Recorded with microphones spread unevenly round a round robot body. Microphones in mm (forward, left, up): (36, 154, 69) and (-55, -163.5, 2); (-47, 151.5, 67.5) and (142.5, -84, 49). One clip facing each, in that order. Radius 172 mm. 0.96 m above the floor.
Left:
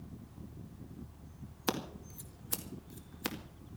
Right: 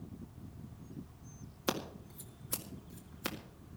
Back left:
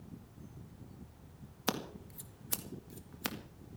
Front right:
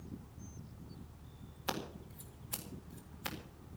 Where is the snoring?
I don't hear snoring.